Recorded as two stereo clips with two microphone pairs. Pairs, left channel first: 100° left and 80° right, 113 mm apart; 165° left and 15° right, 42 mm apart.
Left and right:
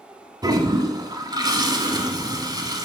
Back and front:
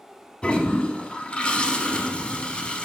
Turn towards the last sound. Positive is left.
turn(degrees=-135)